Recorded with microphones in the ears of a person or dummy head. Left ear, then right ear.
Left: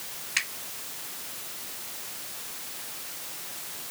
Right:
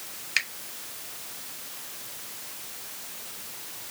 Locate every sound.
0.4 s a finger snap: 30° right (ahead or behind), 2.5 m